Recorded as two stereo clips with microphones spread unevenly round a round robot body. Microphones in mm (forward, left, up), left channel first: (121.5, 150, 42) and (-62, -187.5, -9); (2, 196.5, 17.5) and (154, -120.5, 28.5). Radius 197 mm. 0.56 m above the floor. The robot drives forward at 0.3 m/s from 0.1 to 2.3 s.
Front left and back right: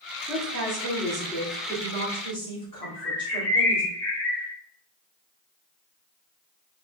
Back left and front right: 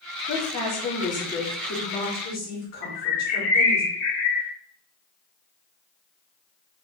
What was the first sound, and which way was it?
A woman speaking, 110° left.